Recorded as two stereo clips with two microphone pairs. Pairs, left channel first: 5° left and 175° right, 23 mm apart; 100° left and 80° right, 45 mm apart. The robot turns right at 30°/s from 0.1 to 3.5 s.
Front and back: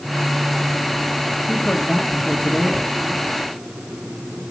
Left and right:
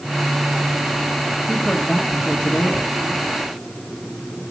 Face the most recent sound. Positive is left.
turn(degrees=65)